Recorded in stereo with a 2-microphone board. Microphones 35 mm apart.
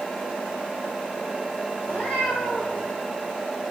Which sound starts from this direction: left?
A cat meowing, at 1.8 s.